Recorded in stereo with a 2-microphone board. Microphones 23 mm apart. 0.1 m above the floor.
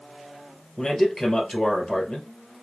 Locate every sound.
0.8 s a man speaking: 25° left (ahead or behind), 2.5 m